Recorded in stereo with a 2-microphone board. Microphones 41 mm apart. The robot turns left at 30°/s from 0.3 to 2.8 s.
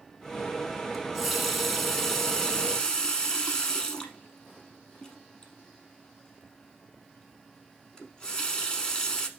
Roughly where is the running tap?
Centre.